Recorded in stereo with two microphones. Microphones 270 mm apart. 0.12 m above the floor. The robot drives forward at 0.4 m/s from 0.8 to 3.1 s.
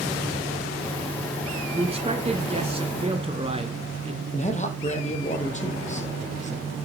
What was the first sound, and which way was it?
A man speaking, 20° right (ahead or behind).